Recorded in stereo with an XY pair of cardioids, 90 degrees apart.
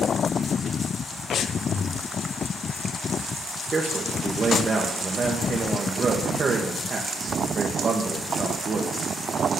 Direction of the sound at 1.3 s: 65° left.